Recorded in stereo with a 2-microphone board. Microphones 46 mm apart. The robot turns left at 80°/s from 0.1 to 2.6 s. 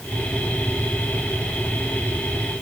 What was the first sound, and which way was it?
Only background noise.